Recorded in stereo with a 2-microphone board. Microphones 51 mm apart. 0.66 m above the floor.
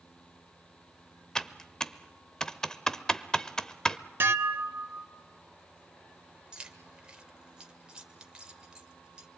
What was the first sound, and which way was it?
Typing on a keyboard, 15° left (ahead or behind).